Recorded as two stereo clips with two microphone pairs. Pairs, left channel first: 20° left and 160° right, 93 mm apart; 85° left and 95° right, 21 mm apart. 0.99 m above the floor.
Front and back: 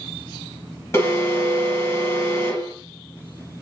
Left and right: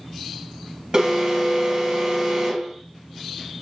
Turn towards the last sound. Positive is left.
turn(degrees=-40)